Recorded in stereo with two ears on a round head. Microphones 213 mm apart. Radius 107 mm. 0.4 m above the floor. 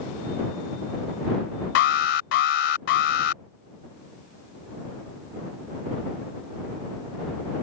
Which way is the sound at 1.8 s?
50° left (ahead or behind).